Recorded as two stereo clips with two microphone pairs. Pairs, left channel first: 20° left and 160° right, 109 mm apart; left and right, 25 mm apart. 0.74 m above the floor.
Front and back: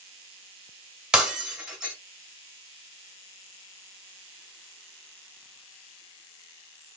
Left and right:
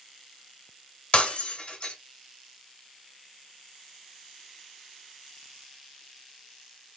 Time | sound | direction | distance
1.1 | breaking glass | 120° left | 1.8 m